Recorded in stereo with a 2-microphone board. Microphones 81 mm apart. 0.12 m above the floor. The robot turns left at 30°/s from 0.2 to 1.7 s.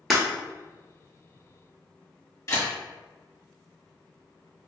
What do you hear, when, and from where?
0.1 s breaking glass: centre (ahead or behind), 0.9 m
2.5 s a camera shutter: 40° left (ahead or behind), 1.8 m